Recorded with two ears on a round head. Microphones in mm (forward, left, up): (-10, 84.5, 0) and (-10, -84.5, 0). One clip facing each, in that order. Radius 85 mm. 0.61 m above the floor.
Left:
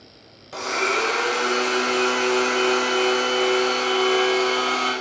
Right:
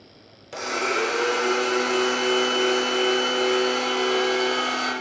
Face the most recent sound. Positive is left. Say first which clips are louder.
# left 1 dB
turn(degrees=-25)  # may be behind; listen again after turning